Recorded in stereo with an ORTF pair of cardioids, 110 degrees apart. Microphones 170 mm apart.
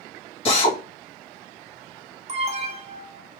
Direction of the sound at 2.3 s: 40° right.